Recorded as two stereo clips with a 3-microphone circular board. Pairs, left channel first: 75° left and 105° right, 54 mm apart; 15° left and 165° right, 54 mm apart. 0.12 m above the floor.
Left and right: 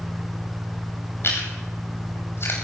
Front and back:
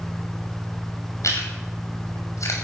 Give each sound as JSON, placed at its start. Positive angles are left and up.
{"t": 1.2, "sound": "chewing", "azimuth_deg": 35, "distance_m": 6.5}